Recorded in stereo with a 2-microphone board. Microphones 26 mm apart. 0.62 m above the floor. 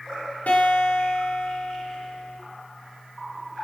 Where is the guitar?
75° left (ahead or behind), 9 m.